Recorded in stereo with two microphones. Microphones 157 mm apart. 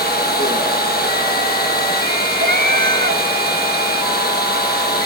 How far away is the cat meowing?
About 1.4 m.